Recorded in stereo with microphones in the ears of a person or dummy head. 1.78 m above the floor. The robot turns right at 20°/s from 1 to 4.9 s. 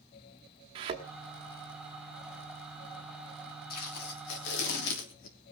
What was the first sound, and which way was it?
A thud, 30° right (ahead or behind).